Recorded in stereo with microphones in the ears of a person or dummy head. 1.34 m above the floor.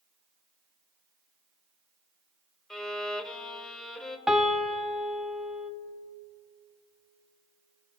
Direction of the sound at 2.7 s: 5° left (ahead or behind).